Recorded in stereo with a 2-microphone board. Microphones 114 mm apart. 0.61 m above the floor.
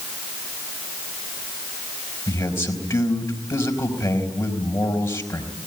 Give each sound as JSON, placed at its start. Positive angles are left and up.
{"t": 2.3, "sound": "a man speaking", "side_deg": 20, "distance_m": 4.0}